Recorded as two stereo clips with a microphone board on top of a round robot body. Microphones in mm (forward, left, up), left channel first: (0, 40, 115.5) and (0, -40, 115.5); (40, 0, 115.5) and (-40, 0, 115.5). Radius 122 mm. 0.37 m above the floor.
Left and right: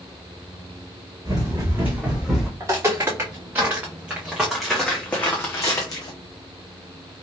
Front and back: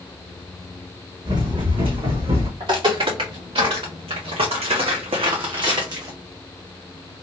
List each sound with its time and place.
1.2 s running footsteps: 140° right, 2 m; by 2.5 s 175° left, 1.9 m
2.6 s footsteps: 145° right, 2.5 m; by 6.2 s 130° left, 1.3 m